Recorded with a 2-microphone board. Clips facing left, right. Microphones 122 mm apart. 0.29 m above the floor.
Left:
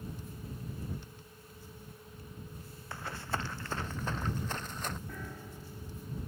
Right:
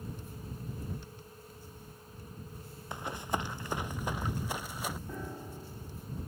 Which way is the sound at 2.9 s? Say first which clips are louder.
Right 3 dB; 15° right (ahead or behind).